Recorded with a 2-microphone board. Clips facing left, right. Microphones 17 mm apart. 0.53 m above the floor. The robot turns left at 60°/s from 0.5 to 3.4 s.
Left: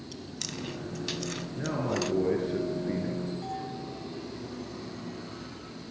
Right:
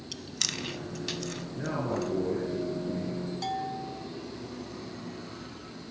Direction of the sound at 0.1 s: 30° right (ahead or behind).